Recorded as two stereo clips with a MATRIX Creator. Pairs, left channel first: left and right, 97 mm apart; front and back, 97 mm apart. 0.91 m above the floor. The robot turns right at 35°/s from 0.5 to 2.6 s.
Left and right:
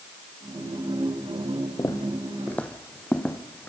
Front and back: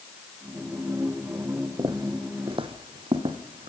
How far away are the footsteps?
About 1.9 m.